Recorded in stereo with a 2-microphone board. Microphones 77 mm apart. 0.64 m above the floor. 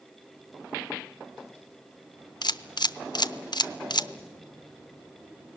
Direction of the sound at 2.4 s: 65° left (ahead or behind).